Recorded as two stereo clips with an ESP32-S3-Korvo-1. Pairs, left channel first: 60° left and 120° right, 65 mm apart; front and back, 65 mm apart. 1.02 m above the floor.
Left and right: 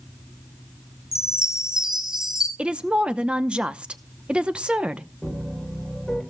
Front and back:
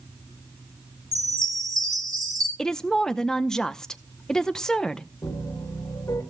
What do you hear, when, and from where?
1.1 s a chime: 160° left, 3 m
2.6 s a woman speaking: 65° right, 0.7 m
5.2 s a piano: 30° right, 3.5 m